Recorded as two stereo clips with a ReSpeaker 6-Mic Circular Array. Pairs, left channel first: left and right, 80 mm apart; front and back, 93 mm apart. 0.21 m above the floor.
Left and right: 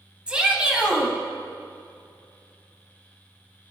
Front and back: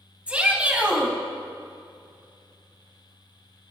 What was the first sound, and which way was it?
A shout, 135° right.